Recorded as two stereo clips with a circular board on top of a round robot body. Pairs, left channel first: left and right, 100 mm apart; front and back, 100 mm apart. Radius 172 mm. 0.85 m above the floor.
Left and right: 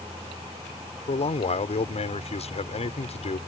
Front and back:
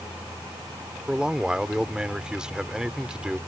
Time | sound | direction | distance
1.1 | a man speaking | 100° left | ?